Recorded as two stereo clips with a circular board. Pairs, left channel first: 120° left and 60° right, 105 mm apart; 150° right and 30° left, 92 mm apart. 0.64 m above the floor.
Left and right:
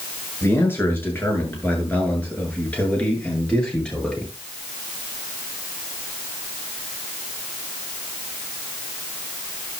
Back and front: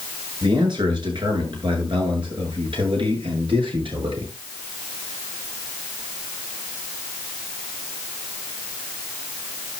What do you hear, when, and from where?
0.4 s a man speaking: 55° left, 7.5 m; by 4.3 s 35° left, 9 m